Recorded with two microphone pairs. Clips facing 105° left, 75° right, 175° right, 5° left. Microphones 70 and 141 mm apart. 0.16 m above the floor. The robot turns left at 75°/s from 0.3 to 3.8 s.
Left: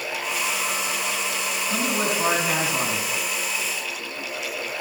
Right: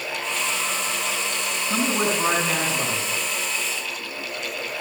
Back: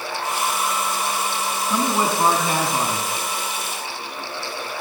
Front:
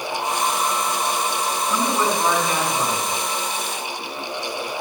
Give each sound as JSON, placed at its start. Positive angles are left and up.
{"t": 1.7, "sound": "a man speaking", "azimuth_deg": -115, "distance_m": 1.8}